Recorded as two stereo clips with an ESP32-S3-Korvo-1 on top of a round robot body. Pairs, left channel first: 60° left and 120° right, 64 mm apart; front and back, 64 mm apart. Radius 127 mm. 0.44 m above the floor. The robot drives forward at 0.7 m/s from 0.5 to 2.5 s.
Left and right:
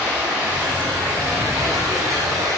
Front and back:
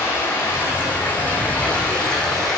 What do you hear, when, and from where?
0.0 s running water: 60° right, 3 m; by 2.6 s 85° right, 2.5 m